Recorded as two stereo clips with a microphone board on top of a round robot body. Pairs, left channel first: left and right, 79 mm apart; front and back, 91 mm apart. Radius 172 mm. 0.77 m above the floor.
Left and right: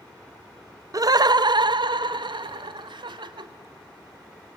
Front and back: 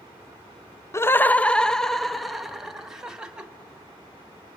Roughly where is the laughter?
Ahead right.